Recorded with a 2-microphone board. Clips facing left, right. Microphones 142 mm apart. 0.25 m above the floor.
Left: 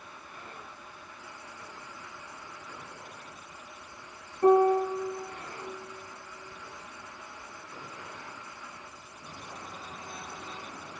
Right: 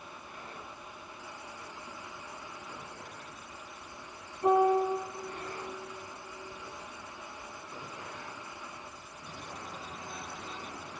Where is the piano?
60° left (ahead or behind), 3 m.